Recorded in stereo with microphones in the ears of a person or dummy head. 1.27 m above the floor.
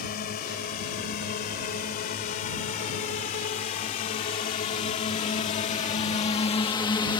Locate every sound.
0.0 s a drone: 50° left (ahead or behind); by 7.2 s 25° left (ahead or behind)